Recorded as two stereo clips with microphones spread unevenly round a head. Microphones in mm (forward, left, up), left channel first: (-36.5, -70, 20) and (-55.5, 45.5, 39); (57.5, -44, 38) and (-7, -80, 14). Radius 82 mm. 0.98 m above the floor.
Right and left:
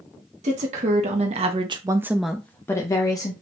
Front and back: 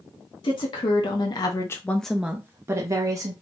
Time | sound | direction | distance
0.4 | a woman speaking | 65° left | 1.2 m